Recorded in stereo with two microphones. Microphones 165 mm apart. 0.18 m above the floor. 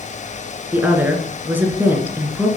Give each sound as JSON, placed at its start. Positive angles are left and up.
{"t": 0.7, "sound": "a woman speaking", "side_deg": -10, "distance_m": 1.9}